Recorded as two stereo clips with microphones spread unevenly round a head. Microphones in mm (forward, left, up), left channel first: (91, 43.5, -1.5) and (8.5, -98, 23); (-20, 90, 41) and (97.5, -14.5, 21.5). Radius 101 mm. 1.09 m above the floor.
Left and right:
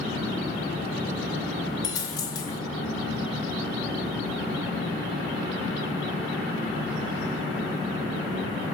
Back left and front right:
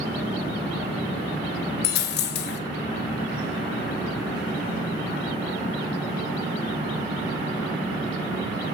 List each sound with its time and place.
1.8 s a dropped coin: 135° left, 0.8 m